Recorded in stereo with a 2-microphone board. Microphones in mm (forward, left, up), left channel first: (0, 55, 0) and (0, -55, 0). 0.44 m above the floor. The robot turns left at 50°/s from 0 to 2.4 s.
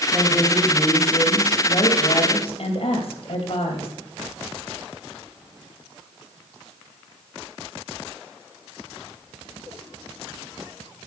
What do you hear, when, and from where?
0.1 s a woman speaking: 165° right, 2.5 m; by 3.9 s 80° left, 2.5 m